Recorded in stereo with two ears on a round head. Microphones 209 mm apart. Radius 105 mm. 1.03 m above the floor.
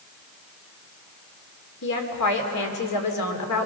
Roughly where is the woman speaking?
Left.